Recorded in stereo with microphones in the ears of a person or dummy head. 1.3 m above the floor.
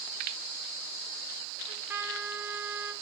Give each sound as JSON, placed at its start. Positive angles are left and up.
{"t": 1.7, "sound": "a trumpet", "side_deg": -15, "distance_m": 1.5}